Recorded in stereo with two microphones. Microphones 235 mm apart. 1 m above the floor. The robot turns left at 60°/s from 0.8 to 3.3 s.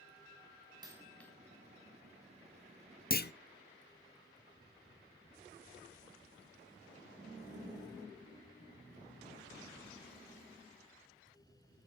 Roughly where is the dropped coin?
Centre.